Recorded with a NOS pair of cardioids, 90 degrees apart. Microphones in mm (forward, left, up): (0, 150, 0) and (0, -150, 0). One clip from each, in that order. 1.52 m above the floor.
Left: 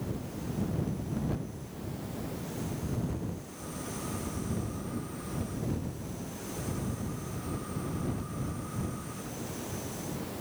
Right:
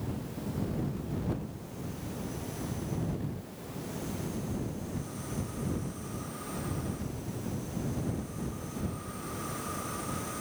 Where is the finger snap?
No finger snap in this recording.